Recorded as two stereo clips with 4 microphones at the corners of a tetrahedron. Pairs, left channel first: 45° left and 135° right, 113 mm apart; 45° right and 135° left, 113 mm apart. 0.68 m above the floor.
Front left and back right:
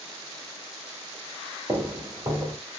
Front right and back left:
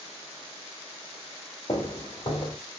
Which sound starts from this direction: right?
Footsteps, at 1.7 s.